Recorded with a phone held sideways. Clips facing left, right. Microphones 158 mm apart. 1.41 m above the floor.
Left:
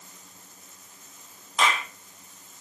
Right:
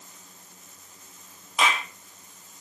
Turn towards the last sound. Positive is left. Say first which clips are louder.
# even
turn(degrees=-5)  # may be behind; listen again after turning